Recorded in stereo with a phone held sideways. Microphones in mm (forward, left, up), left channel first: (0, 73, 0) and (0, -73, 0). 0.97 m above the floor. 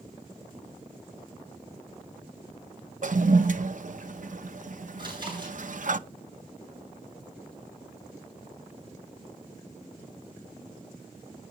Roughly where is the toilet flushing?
Right.